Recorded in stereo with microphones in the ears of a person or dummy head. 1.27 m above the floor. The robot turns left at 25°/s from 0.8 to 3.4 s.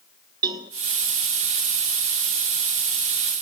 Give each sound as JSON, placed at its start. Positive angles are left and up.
{"t": 0.4, "sound": "a cowbell", "side_deg": -25, "distance_m": 1.0}